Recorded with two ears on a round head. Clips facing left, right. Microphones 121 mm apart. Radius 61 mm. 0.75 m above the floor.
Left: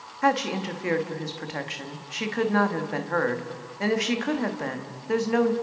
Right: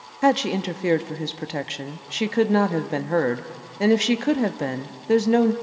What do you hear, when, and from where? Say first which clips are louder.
0.2 s a woman speaking: right 4 dB; 35° right (ahead or behind), 1.2 m